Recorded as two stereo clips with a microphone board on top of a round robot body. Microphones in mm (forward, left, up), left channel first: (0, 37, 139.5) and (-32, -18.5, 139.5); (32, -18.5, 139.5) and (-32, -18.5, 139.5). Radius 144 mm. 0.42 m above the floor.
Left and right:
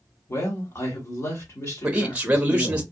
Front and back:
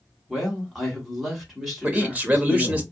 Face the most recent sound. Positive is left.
turn(degrees=-145)